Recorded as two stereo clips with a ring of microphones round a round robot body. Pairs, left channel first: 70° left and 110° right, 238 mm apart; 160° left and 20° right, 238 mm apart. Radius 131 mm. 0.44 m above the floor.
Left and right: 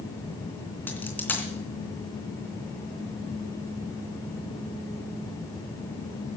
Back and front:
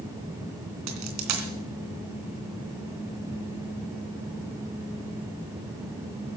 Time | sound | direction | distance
0.9 | a dropped coin | 15° right | 3 m